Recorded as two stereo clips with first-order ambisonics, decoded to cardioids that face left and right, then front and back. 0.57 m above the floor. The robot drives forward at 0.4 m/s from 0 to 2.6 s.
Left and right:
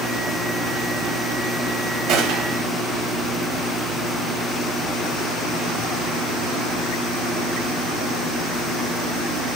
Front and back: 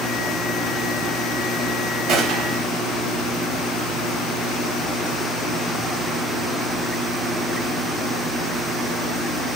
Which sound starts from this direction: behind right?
A gunshot, at 2.1 s.